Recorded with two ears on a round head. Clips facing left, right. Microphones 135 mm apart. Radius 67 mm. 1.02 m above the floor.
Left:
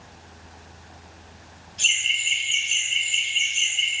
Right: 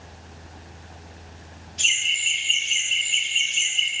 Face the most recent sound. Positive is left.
turn(degrees=-45)  # may be behind; listen again after turning